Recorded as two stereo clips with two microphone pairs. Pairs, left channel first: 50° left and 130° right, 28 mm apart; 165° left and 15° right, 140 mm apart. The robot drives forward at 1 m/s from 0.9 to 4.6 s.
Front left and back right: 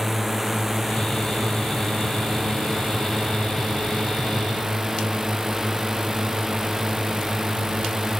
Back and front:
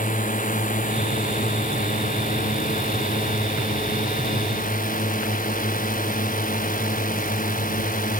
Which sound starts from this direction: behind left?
A drone, at 0.0 s.